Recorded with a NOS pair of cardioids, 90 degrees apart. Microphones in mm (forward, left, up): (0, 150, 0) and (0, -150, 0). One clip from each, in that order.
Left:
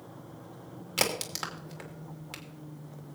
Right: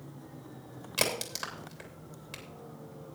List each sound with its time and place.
1.0 s a crack: 20° left, 3 m